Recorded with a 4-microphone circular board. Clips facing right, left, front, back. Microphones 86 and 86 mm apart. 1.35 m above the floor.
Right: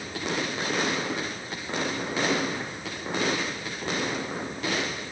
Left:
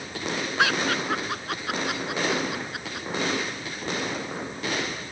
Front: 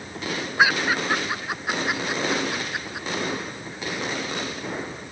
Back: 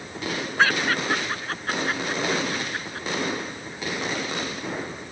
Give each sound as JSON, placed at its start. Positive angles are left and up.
{"t": 0.6, "sound": "laughter", "azimuth_deg": 80}